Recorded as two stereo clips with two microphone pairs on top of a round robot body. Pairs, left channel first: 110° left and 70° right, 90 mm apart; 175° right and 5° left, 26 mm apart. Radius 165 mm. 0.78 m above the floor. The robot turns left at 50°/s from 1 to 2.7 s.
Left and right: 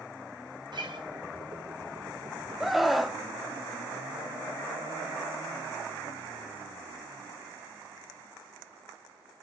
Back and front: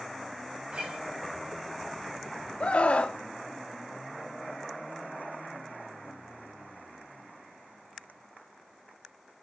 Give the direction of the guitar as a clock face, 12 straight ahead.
1 o'clock.